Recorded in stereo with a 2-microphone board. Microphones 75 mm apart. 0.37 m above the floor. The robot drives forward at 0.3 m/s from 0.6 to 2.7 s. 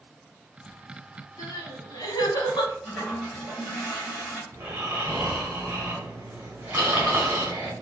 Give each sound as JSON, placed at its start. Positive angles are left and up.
{"t": 1.4, "sound": "crying", "side_deg": 65, "distance_m": 1.0}
{"t": 2.8, "sound": "a toilet flushing", "side_deg": -10, "distance_m": 1.6}
{"t": 4.5, "sound": "snoring", "side_deg": -30, "distance_m": 1.7}